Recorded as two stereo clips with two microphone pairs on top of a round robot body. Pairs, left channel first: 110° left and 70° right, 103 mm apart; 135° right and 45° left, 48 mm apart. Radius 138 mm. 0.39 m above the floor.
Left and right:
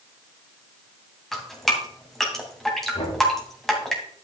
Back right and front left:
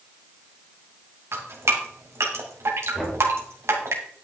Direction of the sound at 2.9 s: 145° left.